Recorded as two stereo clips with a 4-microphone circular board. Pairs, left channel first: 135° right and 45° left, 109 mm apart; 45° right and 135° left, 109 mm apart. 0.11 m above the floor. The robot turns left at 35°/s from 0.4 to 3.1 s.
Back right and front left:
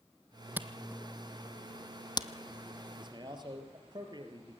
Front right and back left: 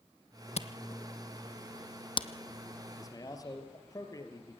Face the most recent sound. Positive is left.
turn(degrees=5)